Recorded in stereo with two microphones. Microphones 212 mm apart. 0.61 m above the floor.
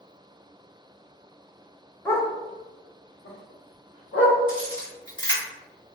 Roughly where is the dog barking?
Centre.